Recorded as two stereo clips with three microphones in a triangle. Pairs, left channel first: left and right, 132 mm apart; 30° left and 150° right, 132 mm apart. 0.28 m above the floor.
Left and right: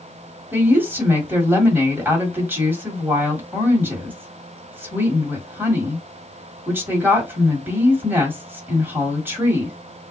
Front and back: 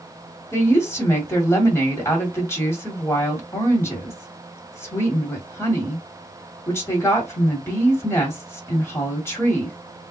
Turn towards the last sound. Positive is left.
turn(degrees=-30)